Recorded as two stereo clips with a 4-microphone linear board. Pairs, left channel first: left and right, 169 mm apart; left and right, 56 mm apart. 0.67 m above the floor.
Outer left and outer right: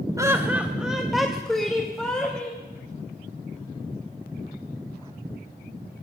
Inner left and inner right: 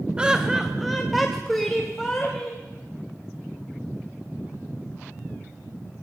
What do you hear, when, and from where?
0.2 s laughter: 20° right (ahead or behind), 1.1 m; by 2.6 s 5° left (ahead or behind), 4 m